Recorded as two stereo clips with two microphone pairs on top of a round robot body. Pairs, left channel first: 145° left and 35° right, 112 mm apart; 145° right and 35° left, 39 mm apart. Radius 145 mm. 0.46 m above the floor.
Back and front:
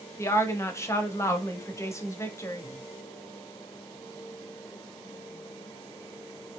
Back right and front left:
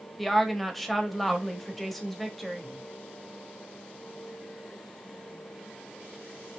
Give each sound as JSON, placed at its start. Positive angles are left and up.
{"t": 0.2, "sound": "a woman speaking", "azimuth_deg": 130, "distance_m": 1.3}